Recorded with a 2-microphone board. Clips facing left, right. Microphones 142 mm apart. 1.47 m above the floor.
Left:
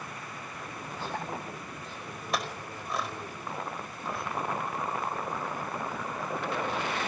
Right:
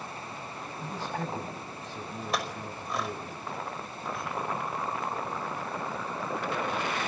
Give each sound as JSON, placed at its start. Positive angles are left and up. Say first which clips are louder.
{"t": 0.8, "sound": "a man speaking", "louder": "right 2 dB", "side_deg": -85, "distance_m": 8.0}
{"t": 2.3, "sound": "a clink", "louder": "left 1 dB", "side_deg": 0, "distance_m": 5.0}